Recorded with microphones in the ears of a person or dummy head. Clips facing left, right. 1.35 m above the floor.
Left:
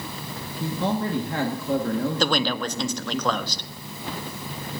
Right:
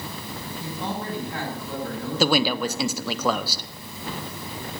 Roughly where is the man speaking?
Left.